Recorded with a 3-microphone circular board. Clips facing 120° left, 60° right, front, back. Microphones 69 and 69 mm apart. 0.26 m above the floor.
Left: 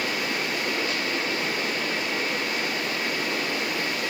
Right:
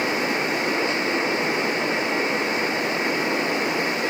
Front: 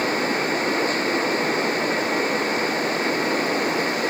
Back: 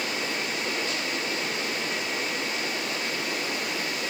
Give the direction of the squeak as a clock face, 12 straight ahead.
No squeak in this recording.